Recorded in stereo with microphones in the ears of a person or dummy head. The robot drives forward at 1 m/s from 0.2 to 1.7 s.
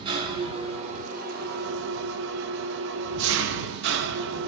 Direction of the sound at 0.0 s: 30° right (ahead or behind).